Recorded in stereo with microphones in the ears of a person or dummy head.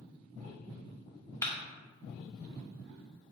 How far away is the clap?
About 0.6 m.